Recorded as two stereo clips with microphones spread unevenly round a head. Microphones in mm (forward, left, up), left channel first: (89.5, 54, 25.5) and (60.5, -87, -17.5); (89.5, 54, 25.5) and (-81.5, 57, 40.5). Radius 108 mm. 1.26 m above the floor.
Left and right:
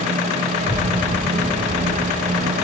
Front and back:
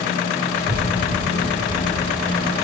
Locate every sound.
0.6 s a child speaking: 150° left, 6 m; by 2.5 s 160° left, 4.5 m